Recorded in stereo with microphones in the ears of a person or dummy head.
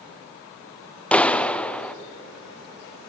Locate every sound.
1.1 s a clap: 5° left (ahead or behind), 0.5 m